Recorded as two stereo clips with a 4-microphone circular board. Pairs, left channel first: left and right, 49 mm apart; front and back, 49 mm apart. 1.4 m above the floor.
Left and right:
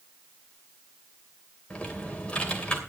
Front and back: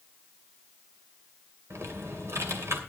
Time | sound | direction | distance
1.7 | typing on a keyboard | 155° left | 2.5 m